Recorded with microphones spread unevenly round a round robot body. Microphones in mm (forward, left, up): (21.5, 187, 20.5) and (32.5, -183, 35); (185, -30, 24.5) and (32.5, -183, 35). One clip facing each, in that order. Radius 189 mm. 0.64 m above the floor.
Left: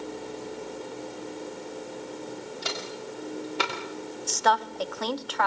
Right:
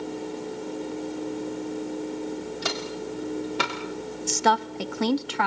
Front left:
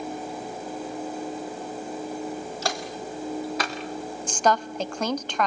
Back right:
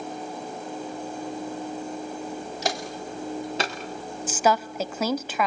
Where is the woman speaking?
50° right, 0.9 m.